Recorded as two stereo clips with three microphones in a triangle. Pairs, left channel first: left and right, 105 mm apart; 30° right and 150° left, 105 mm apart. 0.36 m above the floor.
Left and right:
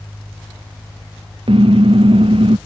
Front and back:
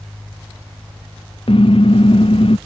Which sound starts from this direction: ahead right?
A car horn, at 1.5 s.